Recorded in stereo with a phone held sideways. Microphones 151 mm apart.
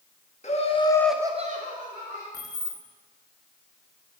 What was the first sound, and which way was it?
Laughter, 50° left (ahead or behind).